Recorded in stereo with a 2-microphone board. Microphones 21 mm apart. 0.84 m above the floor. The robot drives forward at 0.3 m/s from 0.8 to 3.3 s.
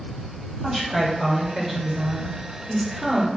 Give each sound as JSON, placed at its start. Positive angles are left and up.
{"t": 0.6, "sound": "a woman speaking", "side_deg": -20, "distance_m": 4.0}